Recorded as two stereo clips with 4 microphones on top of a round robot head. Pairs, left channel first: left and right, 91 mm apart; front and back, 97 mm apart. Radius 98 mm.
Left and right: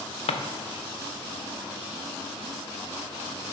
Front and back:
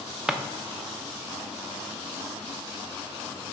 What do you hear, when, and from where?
0.3 s a drawer: 95° left, 0.8 m